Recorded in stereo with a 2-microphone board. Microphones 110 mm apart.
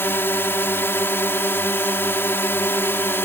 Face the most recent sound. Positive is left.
turn(degrees=20)  # may be behind; listen again after turning